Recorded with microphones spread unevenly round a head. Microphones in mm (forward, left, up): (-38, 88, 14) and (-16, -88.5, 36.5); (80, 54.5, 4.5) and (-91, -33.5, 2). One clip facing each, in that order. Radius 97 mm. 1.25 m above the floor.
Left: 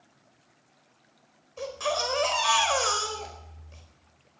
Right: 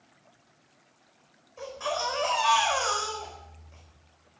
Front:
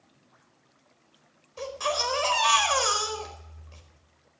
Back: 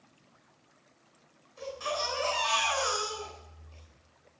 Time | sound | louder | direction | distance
1.6 | a baby crying | left 2 dB, front 5 dB | 45° left | 4.5 m